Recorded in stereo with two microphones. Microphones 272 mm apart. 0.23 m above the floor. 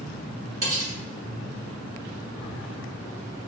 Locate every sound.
0.6 s cutlery clinking: 50° right (ahead or behind), 2 m